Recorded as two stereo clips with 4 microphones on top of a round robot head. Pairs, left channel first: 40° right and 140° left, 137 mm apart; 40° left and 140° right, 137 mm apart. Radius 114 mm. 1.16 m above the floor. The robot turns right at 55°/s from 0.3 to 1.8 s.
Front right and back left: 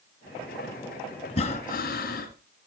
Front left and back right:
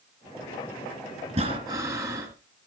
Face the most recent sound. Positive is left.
turn(degrees=-65)